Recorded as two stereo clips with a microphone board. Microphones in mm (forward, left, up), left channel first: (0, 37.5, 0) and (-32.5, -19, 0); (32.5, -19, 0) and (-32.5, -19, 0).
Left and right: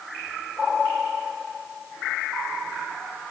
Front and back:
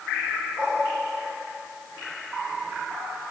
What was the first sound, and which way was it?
Only background noise.